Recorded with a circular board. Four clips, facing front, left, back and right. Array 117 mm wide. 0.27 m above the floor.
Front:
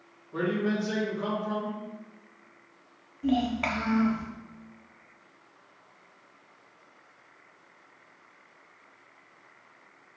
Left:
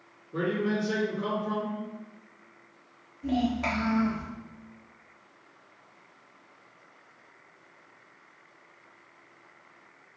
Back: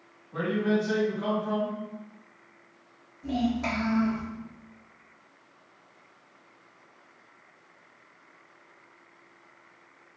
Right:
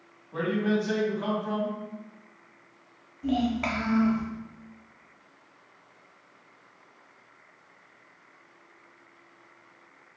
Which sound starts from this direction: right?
A man speaking, at 0.3 s.